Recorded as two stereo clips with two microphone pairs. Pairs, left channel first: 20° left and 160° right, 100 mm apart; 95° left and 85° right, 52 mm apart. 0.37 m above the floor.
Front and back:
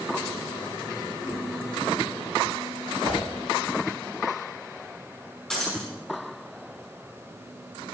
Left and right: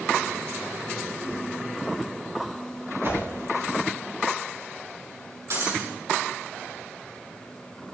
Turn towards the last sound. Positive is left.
turn(degrees=-65)